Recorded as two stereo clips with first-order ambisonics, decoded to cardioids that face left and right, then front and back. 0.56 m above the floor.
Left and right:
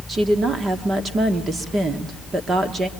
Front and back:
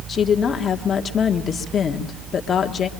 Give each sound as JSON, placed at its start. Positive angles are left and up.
{"t": 0.1, "sound": "a woman speaking", "azimuth_deg": -35, "distance_m": 1.2}